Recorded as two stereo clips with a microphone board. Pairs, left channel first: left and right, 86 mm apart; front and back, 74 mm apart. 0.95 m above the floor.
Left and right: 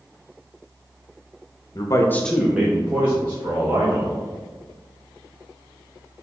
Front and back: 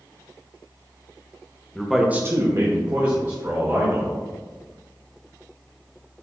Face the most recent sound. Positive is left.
turn(degrees=-140)